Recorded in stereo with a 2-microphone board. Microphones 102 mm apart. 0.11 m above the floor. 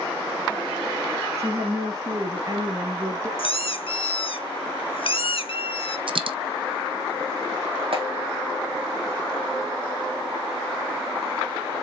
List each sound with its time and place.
1.4 s a woman speaking: 35° right (ahead or behind), 1.7 m; by 3.3 s 30° right (ahead or behind), 2 m
3.4 s a squeak: 65° left (ahead or behind), 0.8 m
6.1 s a dropped coin: 60° right (ahead or behind), 0.5 m
7.9 s a clap: 65° right (ahead or behind), 3.5 m